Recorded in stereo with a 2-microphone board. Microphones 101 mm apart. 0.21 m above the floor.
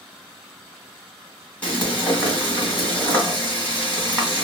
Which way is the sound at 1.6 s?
15° left (ahead or behind).